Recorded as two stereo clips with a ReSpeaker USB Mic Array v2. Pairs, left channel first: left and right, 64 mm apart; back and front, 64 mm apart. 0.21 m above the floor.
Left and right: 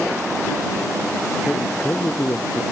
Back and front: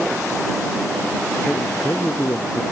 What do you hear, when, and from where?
1.5 s a man speaking: 145° left